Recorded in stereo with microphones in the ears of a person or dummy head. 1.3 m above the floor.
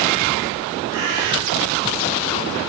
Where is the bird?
70° right (ahead or behind), 7 m.